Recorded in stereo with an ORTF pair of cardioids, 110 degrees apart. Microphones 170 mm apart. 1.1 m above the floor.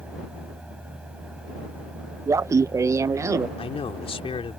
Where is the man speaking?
35° left.